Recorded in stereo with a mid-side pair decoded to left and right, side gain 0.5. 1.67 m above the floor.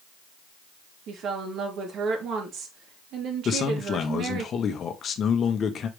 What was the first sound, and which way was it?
A woman speaking, 60° right.